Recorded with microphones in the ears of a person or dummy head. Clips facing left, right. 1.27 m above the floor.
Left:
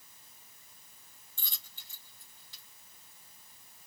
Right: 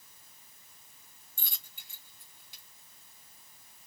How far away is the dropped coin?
About 1.6 m.